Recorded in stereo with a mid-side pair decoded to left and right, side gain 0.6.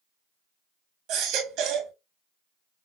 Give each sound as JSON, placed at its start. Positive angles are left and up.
{"t": 1.1, "sound": "a baby crying", "azimuth_deg": -65, "distance_m": 1.6}